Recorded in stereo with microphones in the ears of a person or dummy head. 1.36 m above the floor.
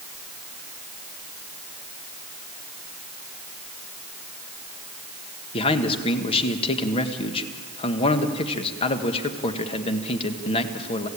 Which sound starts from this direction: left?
A man speaking, at 5.5 s.